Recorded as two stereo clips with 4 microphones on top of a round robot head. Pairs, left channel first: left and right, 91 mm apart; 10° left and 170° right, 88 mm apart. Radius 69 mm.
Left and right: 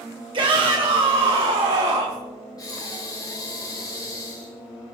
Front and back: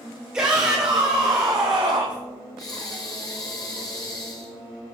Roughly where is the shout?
Right.